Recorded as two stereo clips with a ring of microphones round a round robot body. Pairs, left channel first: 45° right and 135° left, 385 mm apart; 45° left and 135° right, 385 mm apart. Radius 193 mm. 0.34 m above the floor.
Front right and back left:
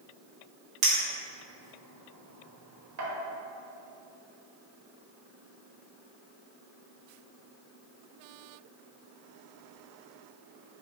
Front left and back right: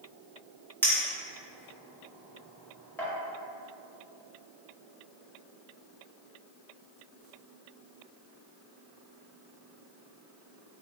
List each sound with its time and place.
0.8 s a clink: 125° left, 1.0 m